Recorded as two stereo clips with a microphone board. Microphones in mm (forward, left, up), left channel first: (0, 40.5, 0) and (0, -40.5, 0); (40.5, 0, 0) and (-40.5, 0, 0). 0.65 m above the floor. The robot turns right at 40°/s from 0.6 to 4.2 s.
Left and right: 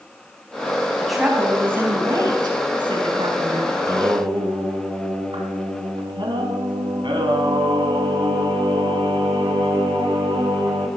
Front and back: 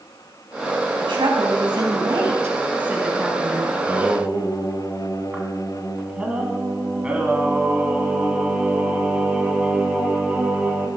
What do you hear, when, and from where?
1.0 s a woman speaking: 175° left, 5.5 m; by 3.6 s 80° right, 5.5 m
3.7 s singing: 120° right, 3.5 m; by 10.9 s 105° right, 3.5 m